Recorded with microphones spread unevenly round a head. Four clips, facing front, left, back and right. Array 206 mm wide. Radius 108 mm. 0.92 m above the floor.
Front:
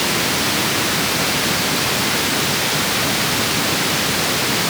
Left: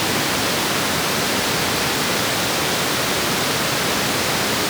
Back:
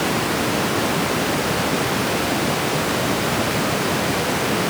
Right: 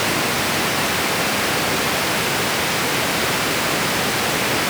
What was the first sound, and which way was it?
Only background noise.